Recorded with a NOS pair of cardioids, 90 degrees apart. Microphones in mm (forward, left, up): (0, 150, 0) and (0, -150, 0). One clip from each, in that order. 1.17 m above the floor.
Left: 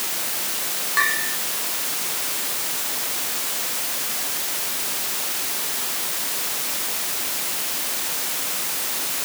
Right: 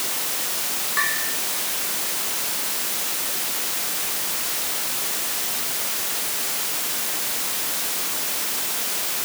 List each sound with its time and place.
1.0 s a bell: 25° left